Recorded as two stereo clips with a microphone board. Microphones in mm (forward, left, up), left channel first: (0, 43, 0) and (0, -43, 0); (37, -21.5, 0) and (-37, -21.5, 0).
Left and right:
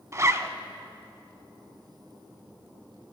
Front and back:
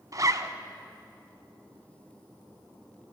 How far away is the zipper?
About 0.6 m.